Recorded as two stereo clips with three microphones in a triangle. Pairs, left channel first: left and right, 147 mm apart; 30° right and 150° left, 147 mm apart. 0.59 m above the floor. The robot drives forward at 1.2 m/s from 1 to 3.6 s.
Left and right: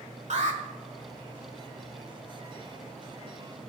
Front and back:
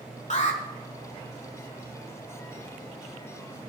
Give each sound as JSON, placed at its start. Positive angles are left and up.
{"t": 0.3, "sound": "an alarm", "azimuth_deg": -60, "distance_m": 1.6}